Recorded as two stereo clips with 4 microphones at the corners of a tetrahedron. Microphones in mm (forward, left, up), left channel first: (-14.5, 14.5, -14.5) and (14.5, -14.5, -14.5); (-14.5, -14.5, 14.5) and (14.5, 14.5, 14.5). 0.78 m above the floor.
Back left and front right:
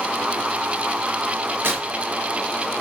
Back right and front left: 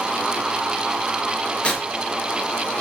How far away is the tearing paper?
About 5 m.